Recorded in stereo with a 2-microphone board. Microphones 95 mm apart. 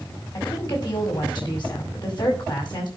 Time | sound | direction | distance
0.3 | a woman speaking | 50° left (ahead or behind) | 5 m